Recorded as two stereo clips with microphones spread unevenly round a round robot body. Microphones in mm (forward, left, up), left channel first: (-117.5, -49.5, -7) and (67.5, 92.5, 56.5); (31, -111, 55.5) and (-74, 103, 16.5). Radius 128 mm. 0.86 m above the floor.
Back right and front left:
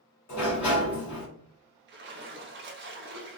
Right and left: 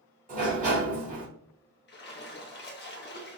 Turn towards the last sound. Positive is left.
turn(degrees=-15)